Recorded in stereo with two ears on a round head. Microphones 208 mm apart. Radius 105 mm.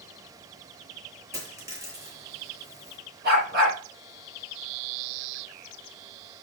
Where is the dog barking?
50° right (ahead or behind), 8 m.